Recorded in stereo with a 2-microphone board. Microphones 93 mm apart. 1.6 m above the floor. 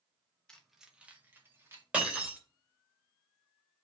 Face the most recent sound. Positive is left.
turn(degrees=-15)  # may be behind; listen again after turning